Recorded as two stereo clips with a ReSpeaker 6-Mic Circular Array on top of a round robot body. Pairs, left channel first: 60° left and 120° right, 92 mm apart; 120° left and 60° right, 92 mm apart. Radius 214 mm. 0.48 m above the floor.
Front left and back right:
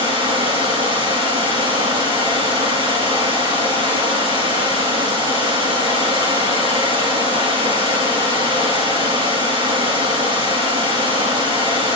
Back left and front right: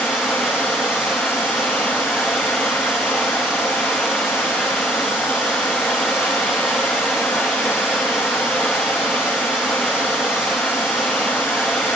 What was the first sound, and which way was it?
Running water, 145° right.